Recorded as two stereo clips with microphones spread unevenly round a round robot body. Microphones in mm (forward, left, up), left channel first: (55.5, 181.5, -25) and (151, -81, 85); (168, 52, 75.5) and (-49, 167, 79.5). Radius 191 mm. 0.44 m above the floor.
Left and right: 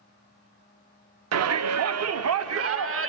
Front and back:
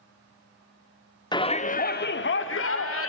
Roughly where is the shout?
Right.